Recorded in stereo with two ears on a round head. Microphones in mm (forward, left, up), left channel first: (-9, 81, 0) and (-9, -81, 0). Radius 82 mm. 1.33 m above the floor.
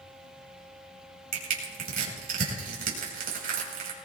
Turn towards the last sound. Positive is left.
turn(degrees=-55)  # may be behind; listen again after turning